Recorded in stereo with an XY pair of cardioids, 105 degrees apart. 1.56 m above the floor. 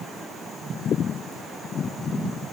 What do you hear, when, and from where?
Only background noise.